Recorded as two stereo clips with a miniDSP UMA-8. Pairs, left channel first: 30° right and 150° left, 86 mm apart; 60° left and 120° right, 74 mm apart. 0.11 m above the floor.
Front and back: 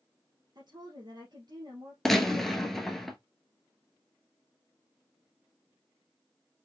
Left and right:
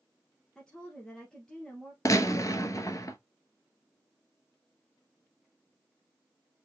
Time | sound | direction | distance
0.6 | a woman speaking | 140° left | 2 m
2.0 | a gunshot | 55° left | 1.0 m